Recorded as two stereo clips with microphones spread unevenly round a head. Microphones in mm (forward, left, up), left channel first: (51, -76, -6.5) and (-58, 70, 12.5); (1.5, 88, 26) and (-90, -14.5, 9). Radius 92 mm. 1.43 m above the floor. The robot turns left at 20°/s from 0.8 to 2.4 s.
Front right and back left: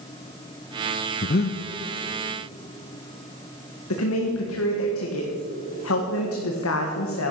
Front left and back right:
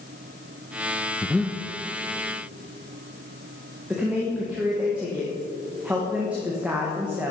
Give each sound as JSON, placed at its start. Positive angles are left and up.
{"t": 1.2, "sound": "breathing", "azimuth_deg": -25, "distance_m": 0.6}
{"t": 3.9, "sound": "a woman speaking", "azimuth_deg": -50, "distance_m": 1.6}